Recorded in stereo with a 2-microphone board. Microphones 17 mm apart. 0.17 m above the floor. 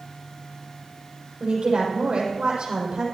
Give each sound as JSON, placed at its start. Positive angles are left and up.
{"t": 1.4, "sound": "a woman speaking", "side_deg": -75, "distance_m": 6.5}